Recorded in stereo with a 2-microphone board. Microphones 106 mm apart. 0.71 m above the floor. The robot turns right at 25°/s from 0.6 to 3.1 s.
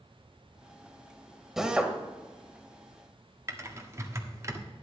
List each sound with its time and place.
1.6 s a drill: 5° right (ahead or behind), 1.5 m; by 1.9 s 15° right (ahead or behind), 1.5 m
3.5 s typing on a keyboard: 25° right (ahead or behind), 1.3 m